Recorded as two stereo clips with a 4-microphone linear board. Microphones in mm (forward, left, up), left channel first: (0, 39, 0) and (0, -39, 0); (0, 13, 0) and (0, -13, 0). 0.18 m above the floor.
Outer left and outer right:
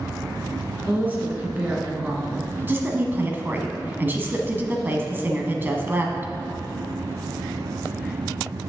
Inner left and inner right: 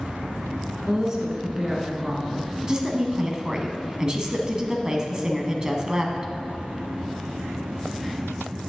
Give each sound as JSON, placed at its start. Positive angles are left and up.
{"t": 0.9, "sound": "a woman speaking", "side_deg": -25, "distance_m": 1.7}
{"t": 2.6, "sound": "a woman speaking", "side_deg": -25, "distance_m": 1.1}